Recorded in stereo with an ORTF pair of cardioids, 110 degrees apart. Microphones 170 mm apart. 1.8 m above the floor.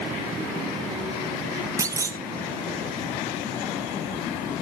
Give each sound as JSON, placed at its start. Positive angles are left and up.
{"t": 1.8, "sound": "a clunk", "azimuth_deg": -20, "distance_m": 0.7}